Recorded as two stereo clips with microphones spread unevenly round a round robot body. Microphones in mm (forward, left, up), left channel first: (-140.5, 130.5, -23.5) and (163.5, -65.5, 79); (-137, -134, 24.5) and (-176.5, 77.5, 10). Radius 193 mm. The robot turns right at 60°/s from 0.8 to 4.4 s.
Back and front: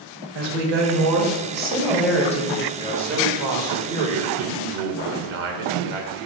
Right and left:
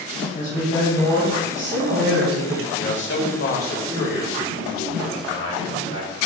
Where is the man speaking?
125° right, 1.6 m; by 6.3 s 25° right, 1.6 m.